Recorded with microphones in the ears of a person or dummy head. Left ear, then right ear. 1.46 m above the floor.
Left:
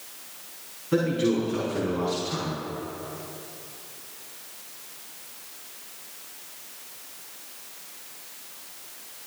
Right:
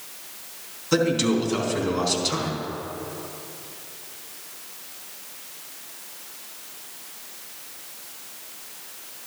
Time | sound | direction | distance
0.9 | a man speaking | 80° right | 3 m